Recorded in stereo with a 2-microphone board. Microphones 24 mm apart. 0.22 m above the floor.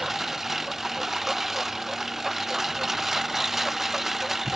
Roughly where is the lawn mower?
Centre.